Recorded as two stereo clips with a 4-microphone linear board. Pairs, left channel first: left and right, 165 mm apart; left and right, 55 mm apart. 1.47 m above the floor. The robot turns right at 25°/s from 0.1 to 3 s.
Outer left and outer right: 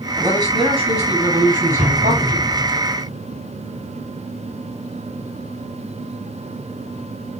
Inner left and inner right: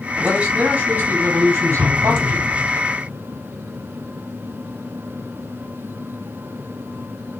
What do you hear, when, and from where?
0.2 s a man speaking: 160° right, 7.5 m; by 2.8 s 95° right, 7.5 m
1.8 s an explosion: 40° right (ahead or behind), 7 m; by 2.8 s 65° right (ahead or behind), 7 m